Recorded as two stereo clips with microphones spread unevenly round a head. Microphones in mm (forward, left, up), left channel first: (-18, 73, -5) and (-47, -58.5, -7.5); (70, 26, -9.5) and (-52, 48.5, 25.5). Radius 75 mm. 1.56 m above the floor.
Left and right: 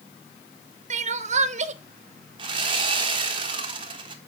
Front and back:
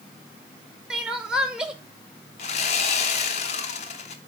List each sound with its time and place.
0.9 s crying: 120° right, 0.7 m
2.4 s sawing: 55° right, 0.9 m